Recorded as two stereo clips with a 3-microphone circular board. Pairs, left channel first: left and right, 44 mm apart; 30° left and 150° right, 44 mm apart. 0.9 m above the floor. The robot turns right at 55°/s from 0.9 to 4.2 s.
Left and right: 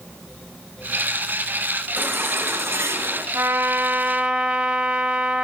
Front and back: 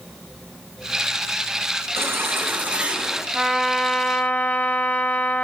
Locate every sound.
2.0 s a baby crying: 135° right, 5.5 m; by 3.2 s 65° right, 5.5 m
3.3 s a trumpet: 75° right, 3.5 m; by 5.4 s 25° right, 3.5 m